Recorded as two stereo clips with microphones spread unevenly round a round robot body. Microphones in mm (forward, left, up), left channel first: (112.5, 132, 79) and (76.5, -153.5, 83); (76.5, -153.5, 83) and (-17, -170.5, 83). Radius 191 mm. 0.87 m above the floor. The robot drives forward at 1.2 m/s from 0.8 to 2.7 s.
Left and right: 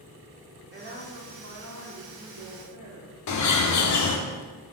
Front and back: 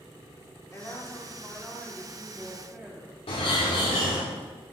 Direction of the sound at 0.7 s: 50° right.